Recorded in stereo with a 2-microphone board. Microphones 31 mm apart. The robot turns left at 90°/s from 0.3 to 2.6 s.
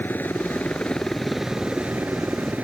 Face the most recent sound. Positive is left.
turn(degrees=-120)